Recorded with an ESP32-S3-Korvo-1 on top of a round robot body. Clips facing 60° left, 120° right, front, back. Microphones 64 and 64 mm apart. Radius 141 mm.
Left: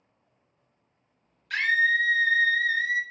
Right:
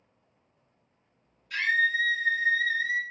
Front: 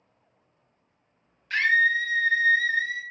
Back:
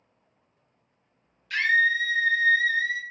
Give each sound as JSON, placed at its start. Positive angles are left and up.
{"t": 1.5, "sound": "a scream", "azimuth_deg": 55, "distance_m": 0.6}